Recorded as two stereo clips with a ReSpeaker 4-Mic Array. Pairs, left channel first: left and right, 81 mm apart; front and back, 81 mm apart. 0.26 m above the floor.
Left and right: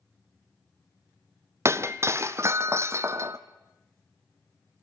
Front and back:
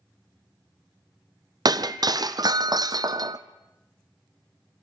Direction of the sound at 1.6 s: 145° right.